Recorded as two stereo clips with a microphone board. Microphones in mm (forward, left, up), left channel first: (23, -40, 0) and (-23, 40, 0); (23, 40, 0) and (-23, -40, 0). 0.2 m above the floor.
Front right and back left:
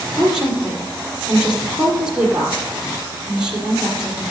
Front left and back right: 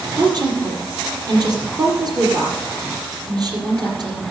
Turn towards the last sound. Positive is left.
turn(degrees=-160)